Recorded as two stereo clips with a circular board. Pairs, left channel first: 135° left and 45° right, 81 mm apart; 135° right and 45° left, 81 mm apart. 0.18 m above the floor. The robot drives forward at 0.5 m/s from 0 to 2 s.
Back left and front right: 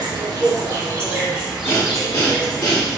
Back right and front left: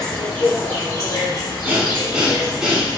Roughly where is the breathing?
Left.